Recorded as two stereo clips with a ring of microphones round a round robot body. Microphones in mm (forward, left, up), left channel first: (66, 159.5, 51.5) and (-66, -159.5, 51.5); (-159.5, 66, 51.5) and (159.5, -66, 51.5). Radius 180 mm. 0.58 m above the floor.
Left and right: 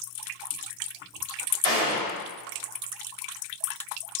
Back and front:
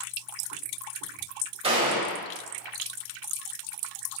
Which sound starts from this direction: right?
A gunshot, at 1.6 s.